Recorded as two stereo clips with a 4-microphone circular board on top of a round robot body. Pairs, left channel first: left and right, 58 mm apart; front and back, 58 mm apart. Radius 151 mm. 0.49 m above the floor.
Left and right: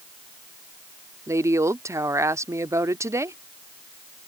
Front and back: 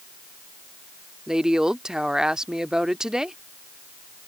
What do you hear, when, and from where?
1.3 s a woman speaking: 100° right